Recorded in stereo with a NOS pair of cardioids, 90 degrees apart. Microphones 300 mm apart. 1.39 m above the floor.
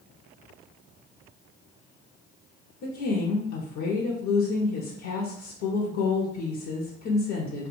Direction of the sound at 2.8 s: 65° left.